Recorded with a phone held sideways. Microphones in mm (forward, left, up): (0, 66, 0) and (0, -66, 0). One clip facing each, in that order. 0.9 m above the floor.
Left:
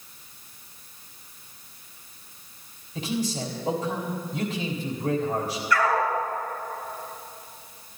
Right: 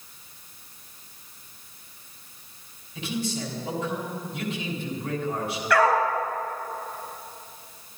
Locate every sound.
3.0 s a man speaking: 45° left (ahead or behind), 4 m
5.7 s a dog barking: 80° right, 3.5 m